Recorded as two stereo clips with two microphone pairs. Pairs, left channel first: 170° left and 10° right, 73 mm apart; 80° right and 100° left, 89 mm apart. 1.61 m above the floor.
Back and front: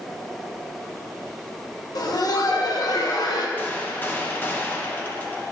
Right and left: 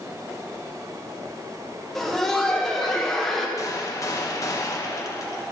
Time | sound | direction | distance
1.9 | laughter | 165° right | 1.4 m
3.6 | a gunshot | 130° right | 1.0 m